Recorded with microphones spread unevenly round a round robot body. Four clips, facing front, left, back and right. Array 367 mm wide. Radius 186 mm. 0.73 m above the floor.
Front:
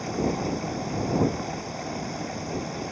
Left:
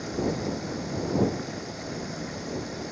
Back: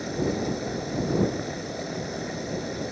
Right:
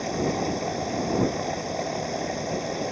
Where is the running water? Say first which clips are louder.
Right 3 dB, even; 130° right.